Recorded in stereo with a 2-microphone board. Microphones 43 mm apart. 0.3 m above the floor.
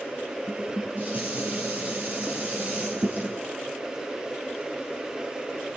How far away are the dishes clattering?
About 4 m.